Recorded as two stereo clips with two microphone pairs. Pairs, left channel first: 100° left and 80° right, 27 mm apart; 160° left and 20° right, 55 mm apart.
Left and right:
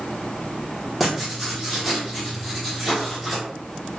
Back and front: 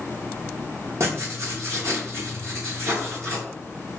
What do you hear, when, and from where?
1.0 s writing: 10° left, 1.9 m